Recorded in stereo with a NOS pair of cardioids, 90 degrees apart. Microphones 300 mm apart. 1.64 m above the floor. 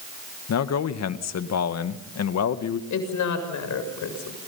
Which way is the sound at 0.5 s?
55° left.